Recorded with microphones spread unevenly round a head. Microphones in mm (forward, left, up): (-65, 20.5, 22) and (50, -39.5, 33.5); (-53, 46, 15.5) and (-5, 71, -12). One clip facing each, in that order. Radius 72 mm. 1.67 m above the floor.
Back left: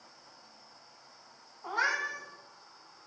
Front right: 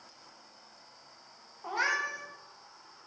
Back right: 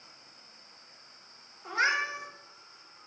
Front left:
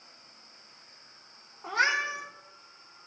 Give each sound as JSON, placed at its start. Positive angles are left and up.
{"t": 1.6, "sound": "a cat meowing", "azimuth_deg": 45, "distance_m": 1.3}